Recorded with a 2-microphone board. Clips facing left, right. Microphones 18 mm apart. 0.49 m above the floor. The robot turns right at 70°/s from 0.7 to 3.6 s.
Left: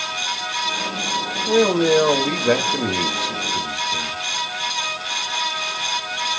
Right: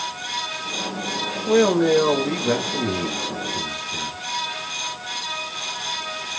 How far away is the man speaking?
About 1.6 m.